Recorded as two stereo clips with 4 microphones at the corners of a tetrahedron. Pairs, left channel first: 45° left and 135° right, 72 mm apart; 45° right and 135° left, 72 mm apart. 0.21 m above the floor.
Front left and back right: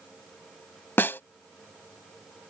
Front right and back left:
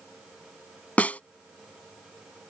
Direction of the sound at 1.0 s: 10° left.